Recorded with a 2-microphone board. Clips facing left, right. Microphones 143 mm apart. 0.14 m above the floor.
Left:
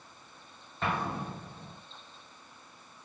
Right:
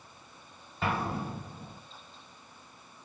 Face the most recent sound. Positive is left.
turn(degrees=-5)  # may be behind; listen again after turning